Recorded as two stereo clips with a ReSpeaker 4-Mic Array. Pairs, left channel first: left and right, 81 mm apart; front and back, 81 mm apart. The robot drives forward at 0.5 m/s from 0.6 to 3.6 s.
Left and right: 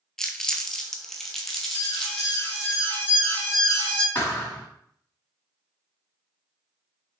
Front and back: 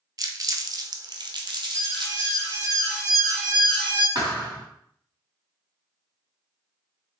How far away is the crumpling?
About 0.6 m.